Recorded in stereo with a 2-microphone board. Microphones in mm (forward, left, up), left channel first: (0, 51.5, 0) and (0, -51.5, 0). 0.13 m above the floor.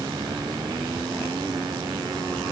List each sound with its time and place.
Only background noise.